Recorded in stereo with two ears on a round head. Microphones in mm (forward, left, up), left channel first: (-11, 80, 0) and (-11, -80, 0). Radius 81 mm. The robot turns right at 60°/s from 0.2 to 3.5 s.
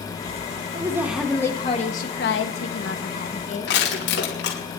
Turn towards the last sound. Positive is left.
turn(degrees=70)  # may be behind; listen again after turning